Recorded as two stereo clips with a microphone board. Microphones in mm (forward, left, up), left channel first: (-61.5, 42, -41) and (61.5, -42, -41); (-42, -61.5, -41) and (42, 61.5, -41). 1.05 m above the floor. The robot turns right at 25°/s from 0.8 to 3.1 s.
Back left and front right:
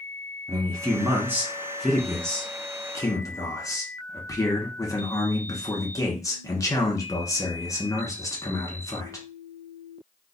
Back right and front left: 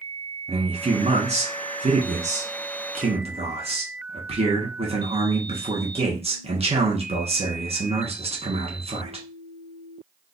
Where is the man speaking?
25° left, 1.1 m; by 9.3 s 85° left, 1.1 m.